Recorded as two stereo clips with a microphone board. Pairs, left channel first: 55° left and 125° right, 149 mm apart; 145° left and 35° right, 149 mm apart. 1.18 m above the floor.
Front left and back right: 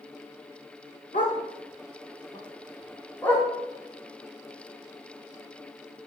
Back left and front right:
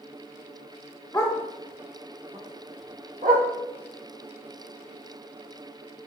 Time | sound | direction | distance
1.1 | a dog barking | 75° left | 1.4 m